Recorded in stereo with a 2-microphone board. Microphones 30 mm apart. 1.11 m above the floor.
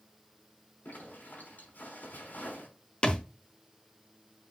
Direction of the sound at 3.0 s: 40° left (ahead or behind).